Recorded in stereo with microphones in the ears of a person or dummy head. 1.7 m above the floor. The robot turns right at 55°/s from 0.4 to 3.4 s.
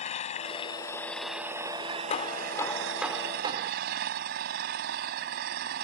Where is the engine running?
135° left; by 5.8 s 60° right.